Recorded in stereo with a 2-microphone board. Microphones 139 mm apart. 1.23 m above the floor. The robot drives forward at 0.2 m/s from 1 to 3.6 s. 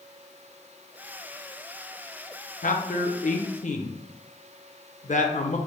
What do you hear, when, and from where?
2.6 s a man speaking: 70° left (ahead or behind), 0.6 m; by 5.6 s 60° left (ahead or behind), 0.6 m